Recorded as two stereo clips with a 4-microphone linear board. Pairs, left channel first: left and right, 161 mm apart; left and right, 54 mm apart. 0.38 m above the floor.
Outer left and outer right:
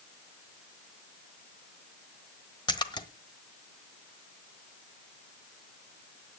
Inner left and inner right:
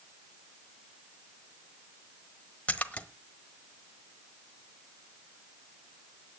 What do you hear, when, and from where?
2.7 s a splash: 30° left (ahead or behind), 1.1 m